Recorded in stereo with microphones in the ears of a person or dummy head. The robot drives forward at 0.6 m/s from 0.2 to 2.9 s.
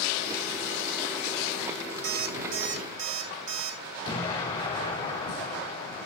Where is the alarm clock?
60° right (ahead or behind), 1.0 m; by 3.8 s 45° right (ahead or behind), 1.1 m.